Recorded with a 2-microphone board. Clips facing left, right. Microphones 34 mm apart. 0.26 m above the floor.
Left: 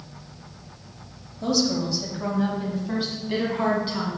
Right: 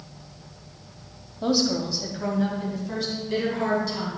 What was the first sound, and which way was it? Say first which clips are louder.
A woman speaking: even; 20° right (ahead or behind).